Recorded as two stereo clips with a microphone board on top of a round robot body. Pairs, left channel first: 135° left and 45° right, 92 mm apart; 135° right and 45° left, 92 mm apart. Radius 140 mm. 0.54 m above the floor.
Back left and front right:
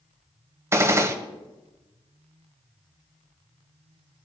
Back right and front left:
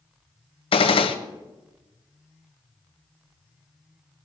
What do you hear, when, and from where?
0.7 s a gunshot: 110° right, 0.8 m